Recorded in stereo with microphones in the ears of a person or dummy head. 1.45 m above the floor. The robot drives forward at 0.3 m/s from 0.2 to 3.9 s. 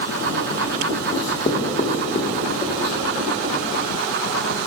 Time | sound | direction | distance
1.1 | writing | 25° left (ahead or behind) | 1.3 m